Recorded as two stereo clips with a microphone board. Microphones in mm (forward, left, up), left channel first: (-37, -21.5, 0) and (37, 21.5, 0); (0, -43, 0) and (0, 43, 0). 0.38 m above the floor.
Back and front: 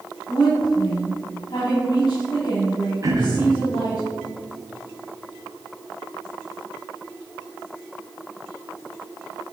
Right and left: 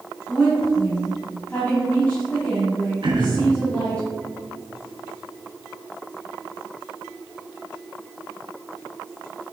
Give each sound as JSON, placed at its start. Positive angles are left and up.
{"t": 0.3, "sound": "a woman speaking", "azimuth_deg": -160, "distance_m": 2.0}
{"t": 3.0, "sound": "throat clearing", "azimuth_deg": 75, "distance_m": 1.5}